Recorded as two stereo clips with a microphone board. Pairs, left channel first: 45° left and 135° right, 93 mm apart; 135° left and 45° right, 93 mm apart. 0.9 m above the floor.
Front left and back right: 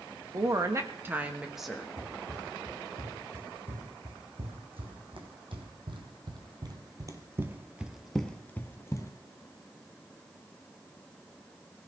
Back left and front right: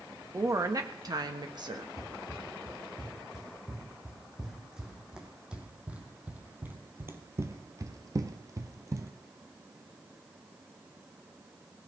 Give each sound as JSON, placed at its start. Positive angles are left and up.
{"t": 0.3, "sound": "a woman speaking", "azimuth_deg": -95, "distance_m": 1.4}
{"t": 2.0, "sound": "running footsteps", "azimuth_deg": -135, "distance_m": 4.5}